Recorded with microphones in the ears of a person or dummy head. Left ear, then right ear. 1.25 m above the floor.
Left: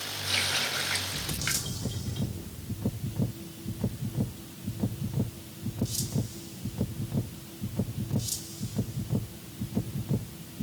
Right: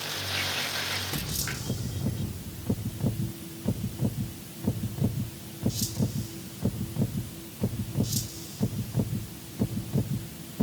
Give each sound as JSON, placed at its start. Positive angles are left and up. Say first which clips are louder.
{"t": 0.2, "sound": "a running tap", "louder": "left 4 dB", "side_deg": 80, "distance_m": 4.5}